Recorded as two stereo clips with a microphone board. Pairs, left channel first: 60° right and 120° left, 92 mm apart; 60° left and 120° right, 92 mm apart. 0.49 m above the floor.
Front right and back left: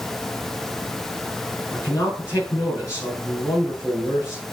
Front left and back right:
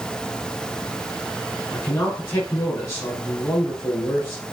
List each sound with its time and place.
1.7 s a man speaking: straight ahead, 5 m